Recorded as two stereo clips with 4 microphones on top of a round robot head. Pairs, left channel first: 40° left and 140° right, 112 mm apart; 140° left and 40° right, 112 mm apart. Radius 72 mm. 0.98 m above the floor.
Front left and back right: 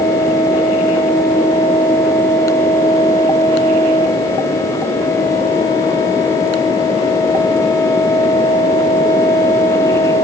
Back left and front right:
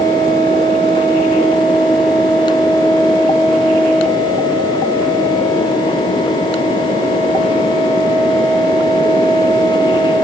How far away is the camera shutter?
I don't hear a camera shutter.